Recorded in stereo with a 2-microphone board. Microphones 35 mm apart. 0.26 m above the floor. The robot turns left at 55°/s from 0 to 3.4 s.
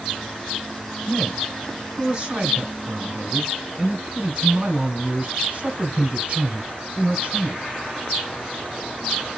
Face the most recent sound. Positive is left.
turn(degrees=-140)